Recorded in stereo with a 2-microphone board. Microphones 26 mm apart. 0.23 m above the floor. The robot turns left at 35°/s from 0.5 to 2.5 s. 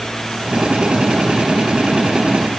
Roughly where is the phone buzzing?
No phone buzzing in this recording.